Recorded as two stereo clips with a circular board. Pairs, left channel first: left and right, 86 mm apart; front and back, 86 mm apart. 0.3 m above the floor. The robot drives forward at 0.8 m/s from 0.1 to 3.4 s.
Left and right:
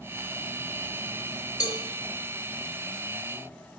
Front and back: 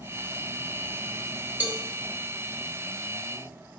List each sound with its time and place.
1.6 s a cowbell: 115° left, 1.4 m; by 1.8 s 120° left, 1.4 m